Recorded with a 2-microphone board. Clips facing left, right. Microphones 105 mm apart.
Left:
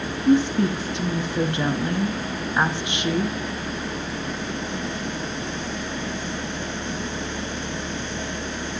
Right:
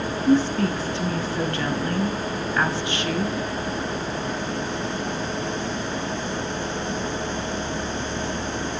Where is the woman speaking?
20° left (ahead or behind), 1.2 m.